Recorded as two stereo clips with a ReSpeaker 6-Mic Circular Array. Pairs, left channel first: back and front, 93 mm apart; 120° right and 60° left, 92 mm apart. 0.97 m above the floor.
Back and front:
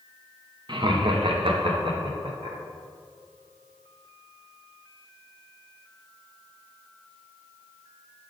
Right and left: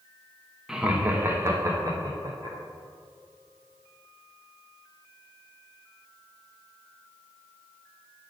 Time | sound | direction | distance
0.7 | laughter | 25° right | 0.8 m